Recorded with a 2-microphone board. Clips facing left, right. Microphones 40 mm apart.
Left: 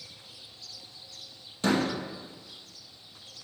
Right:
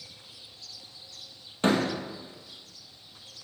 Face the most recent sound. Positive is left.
turn(degrees=-40)  # may be behind; listen again after turning